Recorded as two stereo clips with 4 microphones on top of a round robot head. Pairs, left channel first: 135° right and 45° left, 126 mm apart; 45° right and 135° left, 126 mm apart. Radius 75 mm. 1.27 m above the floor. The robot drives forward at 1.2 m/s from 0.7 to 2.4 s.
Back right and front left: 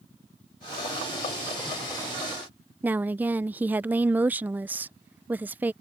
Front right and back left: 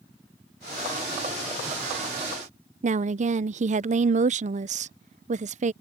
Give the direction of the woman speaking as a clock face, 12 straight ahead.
8 o'clock.